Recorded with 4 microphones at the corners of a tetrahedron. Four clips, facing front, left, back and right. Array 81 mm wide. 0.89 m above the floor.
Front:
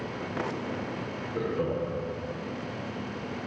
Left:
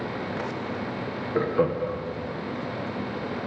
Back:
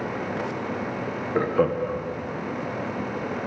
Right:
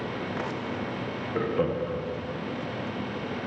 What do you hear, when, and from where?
1.4 s laughter: 165° left, 1.4 m